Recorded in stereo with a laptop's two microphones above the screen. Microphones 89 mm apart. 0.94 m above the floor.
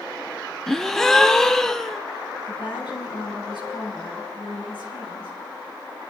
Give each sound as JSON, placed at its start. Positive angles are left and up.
{"t": 0.7, "sound": "a gasp", "side_deg": 5, "distance_m": 0.7}
{"t": 2.5, "sound": "a woman speaking", "side_deg": 60, "distance_m": 5.5}